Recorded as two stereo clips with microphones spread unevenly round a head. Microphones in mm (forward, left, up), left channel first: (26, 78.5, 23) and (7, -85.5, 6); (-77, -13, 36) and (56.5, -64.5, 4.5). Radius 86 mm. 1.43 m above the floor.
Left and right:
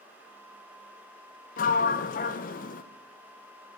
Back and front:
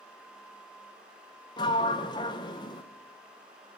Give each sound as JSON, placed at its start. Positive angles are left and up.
{"t": 1.6, "sound": "a sliding door", "azimuth_deg": 110, "distance_m": 0.6}